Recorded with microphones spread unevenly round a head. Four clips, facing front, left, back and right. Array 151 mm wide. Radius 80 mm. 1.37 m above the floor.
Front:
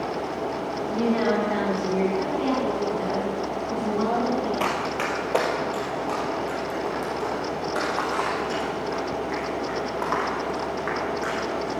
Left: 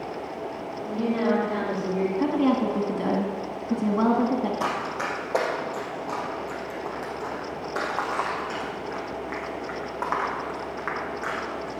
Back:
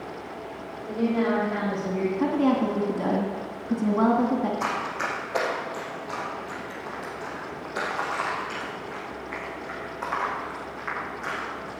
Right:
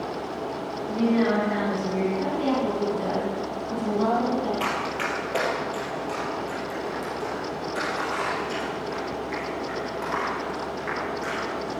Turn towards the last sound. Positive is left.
turn(degrees=40)